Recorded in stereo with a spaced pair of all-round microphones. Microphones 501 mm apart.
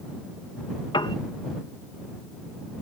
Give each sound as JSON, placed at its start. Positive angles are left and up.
{"t": 0.9, "sound": "a piano", "side_deg": 10}